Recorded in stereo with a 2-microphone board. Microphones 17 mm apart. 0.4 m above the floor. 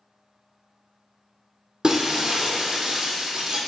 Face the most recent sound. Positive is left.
turn(degrees=-35)  # may be behind; listen again after turning